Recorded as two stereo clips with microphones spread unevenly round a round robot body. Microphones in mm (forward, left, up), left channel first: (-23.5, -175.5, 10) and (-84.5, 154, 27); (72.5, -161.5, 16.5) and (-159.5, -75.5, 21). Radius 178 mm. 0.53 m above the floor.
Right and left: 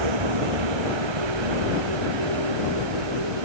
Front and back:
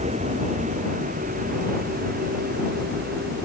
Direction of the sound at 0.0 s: 85° left.